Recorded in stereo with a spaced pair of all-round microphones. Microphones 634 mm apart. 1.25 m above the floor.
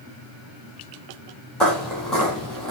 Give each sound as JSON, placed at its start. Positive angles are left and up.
{"t": 1.6, "sound": "footsteps", "side_deg": 0, "distance_m": 1.4}